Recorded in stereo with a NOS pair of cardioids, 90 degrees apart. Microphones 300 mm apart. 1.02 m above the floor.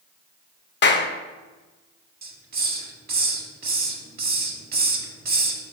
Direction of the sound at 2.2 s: 35° right.